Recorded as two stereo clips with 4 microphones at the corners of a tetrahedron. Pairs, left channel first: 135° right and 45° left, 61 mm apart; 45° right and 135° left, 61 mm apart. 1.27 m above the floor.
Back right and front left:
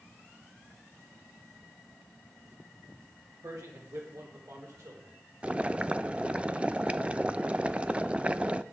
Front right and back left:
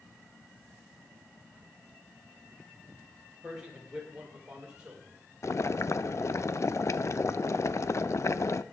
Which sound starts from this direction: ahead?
Boiling, at 5.4 s.